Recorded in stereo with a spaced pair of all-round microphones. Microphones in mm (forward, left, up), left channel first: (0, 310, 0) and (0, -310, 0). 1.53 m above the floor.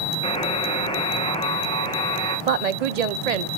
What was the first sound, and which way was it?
A buzzer, 10° left (ahead or behind).